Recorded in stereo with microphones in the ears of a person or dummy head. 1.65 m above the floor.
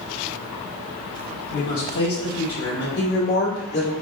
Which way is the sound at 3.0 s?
75° left (ahead or behind).